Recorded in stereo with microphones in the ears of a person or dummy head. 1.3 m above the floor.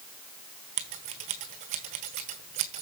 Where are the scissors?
40° right (ahead or behind), 1.4 m.